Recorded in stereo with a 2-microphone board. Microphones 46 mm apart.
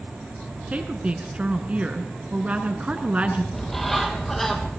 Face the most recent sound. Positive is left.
turn(degrees=5)  # may be behind; listen again after turning